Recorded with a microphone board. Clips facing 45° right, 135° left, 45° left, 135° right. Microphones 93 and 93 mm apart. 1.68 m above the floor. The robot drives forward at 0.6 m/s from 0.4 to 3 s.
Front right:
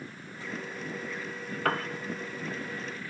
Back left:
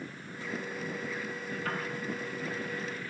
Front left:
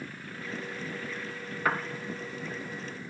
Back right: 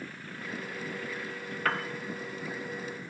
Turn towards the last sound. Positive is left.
turn(degrees=-125)